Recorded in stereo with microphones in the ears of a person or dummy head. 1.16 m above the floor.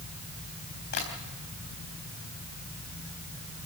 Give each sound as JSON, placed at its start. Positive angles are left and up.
{"t": 0.9, "sound": "tapping", "side_deg": 50, "distance_m": 4.0}